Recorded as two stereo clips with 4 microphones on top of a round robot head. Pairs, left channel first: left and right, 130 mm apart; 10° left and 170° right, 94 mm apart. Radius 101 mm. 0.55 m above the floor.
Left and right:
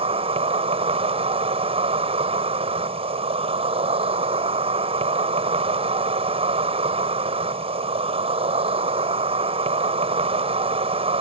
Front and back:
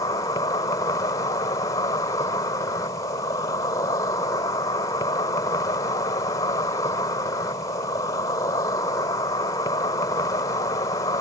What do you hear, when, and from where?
0.0 s an insect: 50° right